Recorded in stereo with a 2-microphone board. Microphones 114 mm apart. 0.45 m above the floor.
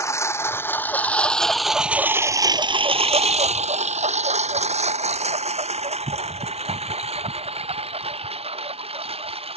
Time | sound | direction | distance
0.0 | a lawn mower | 25° left (ahead or behind) | ?